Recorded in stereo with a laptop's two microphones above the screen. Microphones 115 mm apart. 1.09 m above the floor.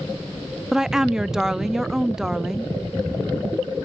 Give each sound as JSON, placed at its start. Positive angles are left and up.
{"t": 0.7, "sound": "a woman speaking", "side_deg": -5, "distance_m": 0.5}